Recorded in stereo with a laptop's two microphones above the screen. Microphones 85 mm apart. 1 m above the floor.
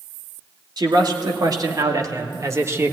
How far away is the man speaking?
About 2.5 m.